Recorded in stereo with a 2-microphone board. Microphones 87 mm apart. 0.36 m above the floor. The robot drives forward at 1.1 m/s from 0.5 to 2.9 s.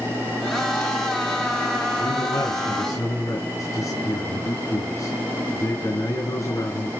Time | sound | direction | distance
2.0 | a man speaking | 50° left (ahead or behind) | 3.5 m